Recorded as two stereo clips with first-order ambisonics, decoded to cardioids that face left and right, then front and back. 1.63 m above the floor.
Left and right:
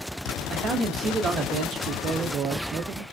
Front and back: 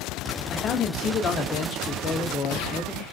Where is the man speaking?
45° right, 0.5 m.